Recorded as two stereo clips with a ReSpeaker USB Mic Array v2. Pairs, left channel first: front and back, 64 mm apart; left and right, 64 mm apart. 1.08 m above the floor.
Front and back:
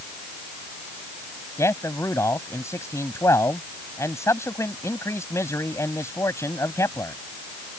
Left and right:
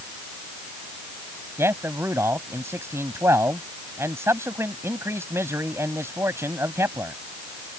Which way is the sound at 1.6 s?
40° right.